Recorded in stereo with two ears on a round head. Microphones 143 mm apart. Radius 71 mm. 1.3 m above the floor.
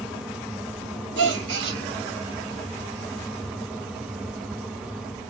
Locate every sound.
1.2 s a gasp: 90° right, 0.9 m